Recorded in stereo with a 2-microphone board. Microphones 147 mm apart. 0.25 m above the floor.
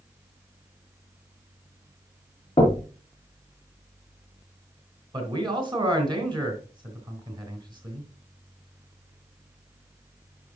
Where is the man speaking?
35° right (ahead or behind), 2 m.